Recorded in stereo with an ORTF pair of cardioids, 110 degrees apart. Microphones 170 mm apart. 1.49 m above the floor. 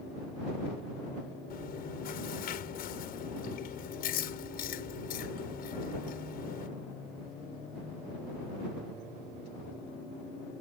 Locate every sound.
1.5 s chewing: 65° left